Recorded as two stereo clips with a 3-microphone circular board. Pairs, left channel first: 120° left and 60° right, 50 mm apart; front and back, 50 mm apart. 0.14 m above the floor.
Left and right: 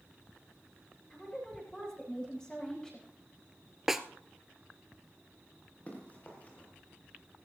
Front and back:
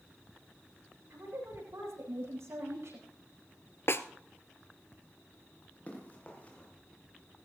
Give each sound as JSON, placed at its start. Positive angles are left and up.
{"t": 1.1, "sound": "a woman speaking", "azimuth_deg": -165, "distance_m": 8.5}
{"t": 3.9, "sound": "a snare drum", "azimuth_deg": 20, "distance_m": 0.8}
{"t": 5.9, "sound": "running footsteps", "azimuth_deg": 60, "distance_m": 5.0}